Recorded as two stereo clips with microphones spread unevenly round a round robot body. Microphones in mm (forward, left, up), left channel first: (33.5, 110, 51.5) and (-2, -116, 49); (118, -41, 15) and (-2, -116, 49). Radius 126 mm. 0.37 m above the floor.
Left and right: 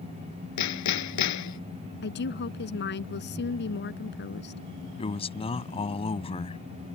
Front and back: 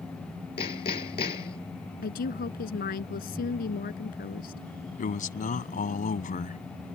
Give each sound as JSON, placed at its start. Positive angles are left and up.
{"t": 0.6, "sound": "hammering", "azimuth_deg": 90}
{"t": 2.0, "sound": "a woman speaking", "azimuth_deg": 40}
{"t": 5.0, "sound": "a man speaking", "azimuth_deg": 15}